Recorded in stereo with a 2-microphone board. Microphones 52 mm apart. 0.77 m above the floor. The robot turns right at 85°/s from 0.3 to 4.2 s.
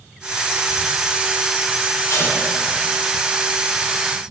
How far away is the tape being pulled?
About 6 m.